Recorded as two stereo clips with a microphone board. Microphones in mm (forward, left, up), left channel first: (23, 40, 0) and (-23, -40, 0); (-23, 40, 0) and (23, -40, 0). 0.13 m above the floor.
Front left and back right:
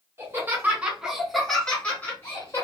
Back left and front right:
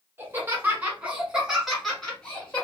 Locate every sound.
0.2 s laughter: 95° right, 1.2 m; by 2.6 s 60° left, 1.2 m